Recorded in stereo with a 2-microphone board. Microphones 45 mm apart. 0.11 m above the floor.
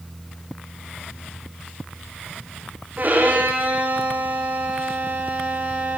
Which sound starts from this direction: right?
A violin, at 3.0 s.